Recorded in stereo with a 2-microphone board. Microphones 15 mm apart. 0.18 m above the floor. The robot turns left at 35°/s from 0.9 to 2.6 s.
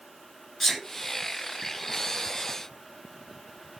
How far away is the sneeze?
About 2.5 m.